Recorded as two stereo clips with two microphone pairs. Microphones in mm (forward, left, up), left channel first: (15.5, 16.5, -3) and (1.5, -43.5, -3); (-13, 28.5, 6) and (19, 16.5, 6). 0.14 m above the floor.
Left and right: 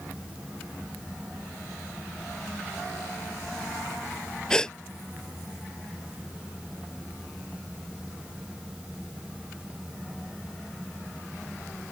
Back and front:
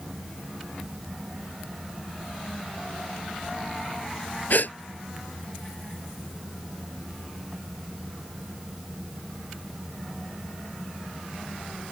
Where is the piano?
No piano in this recording.